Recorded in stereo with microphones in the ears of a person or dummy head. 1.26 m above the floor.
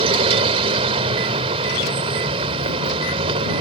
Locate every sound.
0.0 s a vehicle: 35° right (ahead or behind)